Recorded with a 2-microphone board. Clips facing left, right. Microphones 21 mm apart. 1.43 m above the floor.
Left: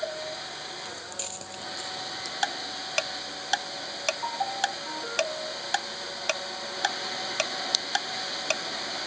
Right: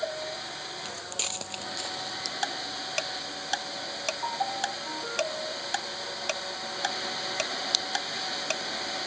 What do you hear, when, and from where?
0.8 s footsteps: 35° right (ahead or behind); by 2.3 s 40° right (ahead or behind)
2.4 s ticking: 20° left (ahead or behind)